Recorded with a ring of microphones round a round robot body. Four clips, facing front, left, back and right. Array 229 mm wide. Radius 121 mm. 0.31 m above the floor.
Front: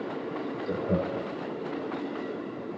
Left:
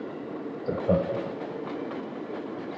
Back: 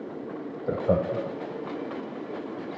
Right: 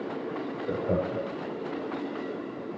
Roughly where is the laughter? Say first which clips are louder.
Left 4 dB, back 5 dB; behind left.